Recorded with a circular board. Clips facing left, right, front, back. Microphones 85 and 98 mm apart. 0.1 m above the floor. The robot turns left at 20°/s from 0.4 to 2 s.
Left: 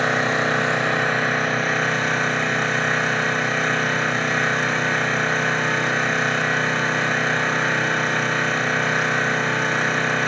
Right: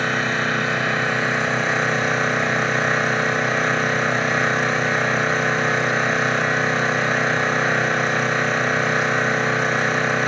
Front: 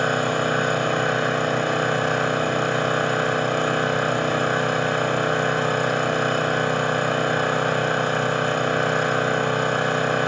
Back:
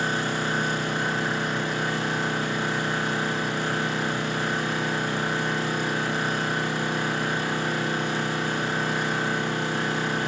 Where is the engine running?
30° left, 4.5 m; by 10.3 s 5° right, 4.5 m.